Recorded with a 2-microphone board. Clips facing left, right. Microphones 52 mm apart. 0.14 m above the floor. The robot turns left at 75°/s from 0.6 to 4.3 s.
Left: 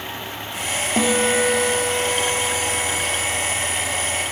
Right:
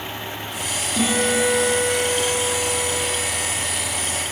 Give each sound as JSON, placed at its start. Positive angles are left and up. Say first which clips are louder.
{"t": 1.0, "sound": "a guitar", "louder": "left 1 dB", "azimuth_deg": 115, "distance_m": 1.7}